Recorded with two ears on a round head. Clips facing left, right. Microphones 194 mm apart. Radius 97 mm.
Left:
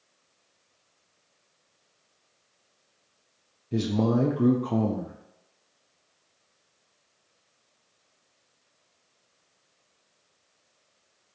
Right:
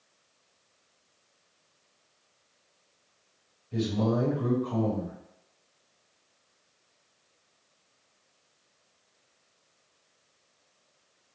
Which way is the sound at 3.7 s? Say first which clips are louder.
Left 3 dB; 60° left (ahead or behind).